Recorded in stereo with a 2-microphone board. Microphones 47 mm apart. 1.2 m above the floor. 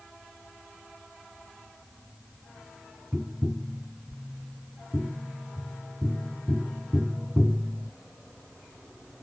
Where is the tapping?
20° right (ahead or behind).